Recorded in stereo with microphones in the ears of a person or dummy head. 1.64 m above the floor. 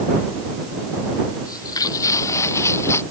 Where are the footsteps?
25° left (ahead or behind); by 3.0 s 20° left (ahead or behind).